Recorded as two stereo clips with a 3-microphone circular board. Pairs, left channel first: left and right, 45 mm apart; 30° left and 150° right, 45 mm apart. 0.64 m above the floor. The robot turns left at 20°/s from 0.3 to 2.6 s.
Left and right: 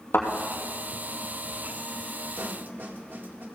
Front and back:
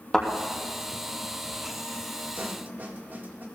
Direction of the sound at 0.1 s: 110° left.